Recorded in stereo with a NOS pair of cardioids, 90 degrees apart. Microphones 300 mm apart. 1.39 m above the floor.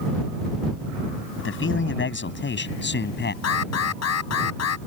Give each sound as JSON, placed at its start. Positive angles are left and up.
{"t": 1.4, "sound": "a man speaking", "azimuth_deg": 40}
{"t": 3.4, "sound": "an alarm", "azimuth_deg": 60}